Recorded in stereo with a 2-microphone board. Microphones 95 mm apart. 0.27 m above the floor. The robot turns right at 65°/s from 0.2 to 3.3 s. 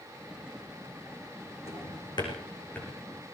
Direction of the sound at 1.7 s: 85° left.